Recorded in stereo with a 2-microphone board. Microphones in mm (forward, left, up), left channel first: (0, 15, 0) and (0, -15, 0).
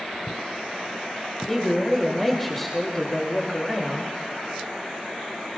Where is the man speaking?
5° left (ahead or behind), 1.9 m.